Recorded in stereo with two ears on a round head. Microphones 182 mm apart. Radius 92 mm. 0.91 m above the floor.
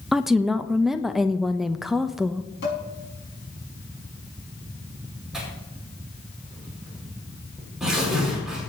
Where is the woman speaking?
Centre (ahead or behind), 0.5 m.